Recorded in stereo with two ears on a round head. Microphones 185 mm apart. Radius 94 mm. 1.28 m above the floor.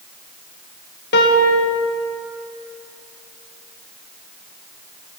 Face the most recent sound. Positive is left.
turn(degrees=50)  # may be behind; listen again after turning